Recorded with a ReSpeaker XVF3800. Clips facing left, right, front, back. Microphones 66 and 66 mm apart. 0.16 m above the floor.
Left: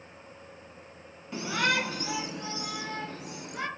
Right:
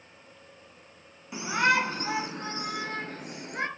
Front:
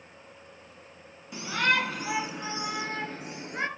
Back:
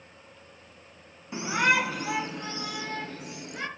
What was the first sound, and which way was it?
A shout, 155° right.